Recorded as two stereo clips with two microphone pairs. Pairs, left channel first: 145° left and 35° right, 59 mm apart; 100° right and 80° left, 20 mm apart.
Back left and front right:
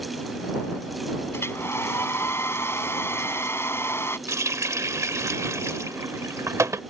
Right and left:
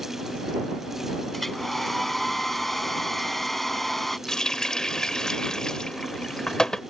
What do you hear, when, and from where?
1.3 s a hair dryer: 175° right
4.3 s a running tap: 45° right